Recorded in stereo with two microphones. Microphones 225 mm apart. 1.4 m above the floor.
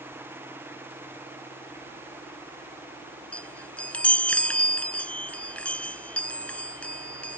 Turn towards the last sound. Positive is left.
turn(degrees=5)  # may be behind; listen again after turning